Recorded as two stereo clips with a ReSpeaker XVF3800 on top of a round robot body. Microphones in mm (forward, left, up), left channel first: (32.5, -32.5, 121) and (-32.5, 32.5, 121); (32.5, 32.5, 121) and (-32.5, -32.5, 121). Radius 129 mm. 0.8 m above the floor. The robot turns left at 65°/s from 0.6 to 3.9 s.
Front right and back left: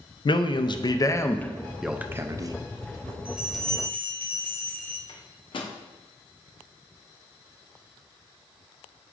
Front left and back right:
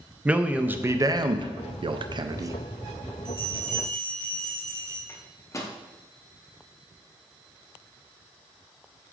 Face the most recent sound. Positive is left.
turn(degrees=-15)